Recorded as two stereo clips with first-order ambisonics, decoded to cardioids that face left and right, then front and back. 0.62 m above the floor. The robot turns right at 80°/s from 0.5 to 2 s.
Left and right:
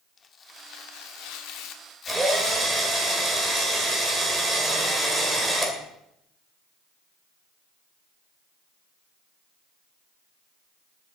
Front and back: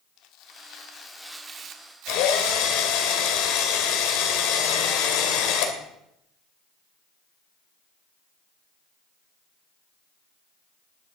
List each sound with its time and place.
0.2 s tearing paper: 30° left, 1.1 m; by 3.0 s 150° left, 1.1 m
2.1 s a drill: 10° right, 2.5 m